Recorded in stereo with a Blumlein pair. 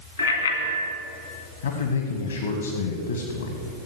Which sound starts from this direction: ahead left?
A man speaking, at 1.6 s.